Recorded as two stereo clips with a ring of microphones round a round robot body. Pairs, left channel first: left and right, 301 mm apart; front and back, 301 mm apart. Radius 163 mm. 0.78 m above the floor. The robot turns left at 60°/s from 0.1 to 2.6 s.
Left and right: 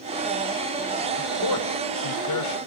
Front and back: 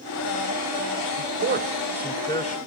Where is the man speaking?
145° left, 3.5 m; by 2.6 s 60° left, 3.5 m.